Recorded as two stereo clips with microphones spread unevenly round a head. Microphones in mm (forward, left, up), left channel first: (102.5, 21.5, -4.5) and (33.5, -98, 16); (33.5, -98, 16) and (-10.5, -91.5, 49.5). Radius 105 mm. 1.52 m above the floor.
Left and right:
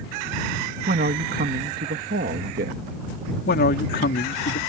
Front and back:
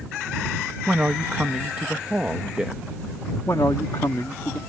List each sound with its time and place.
0.9 s a man speaking: 130° right
3.5 s a man speaking: 65° left